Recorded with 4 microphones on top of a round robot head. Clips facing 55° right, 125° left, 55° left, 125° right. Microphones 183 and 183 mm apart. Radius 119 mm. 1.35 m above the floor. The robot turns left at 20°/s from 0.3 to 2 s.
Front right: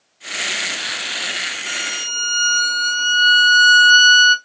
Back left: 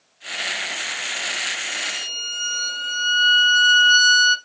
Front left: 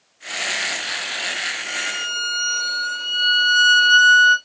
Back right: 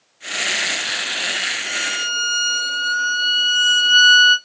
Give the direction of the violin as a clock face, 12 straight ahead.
1 o'clock.